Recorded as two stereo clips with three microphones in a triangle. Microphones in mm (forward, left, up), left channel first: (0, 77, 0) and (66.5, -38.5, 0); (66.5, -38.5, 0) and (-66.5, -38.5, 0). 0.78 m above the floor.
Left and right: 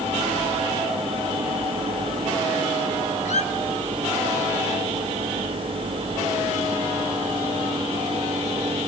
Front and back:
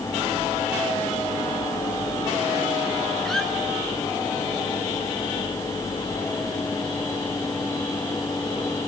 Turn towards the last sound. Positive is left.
turn(degrees=90)